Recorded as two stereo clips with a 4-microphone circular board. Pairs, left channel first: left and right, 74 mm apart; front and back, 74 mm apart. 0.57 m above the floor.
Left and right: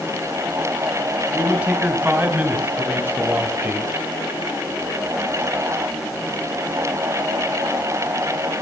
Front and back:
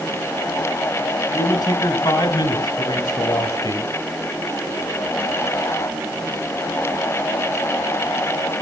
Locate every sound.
1.3 s a man speaking: 15° right, 4 m; by 4.0 s 30° right, 1.9 m